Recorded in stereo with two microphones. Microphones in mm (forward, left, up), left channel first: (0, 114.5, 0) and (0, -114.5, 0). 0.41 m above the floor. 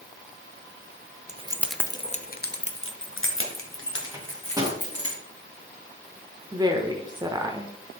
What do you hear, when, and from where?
1.3 s keys jangling: 30° right (ahead or behind), 0.6 m; by 5.1 s 70° left (ahead or behind), 3 m
4.1 s a microwave: 15° right (ahead or behind), 2.5 m
6.5 s a woman speaking: 15° right (ahead or behind), 0.8 m